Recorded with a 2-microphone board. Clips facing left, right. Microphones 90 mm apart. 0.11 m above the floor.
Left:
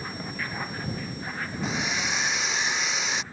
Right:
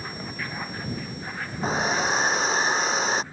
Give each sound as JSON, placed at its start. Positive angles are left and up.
{"t": 1.6, "sound": "a hair dryer", "side_deg": -40}